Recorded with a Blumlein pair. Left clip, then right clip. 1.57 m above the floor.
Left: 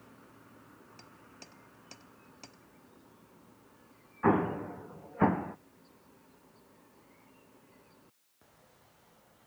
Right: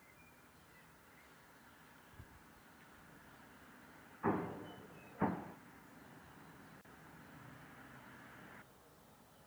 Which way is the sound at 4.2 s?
30° left.